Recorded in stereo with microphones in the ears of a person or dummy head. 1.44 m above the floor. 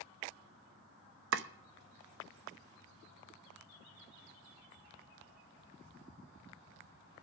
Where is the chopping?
70° right (ahead or behind), 0.8 m.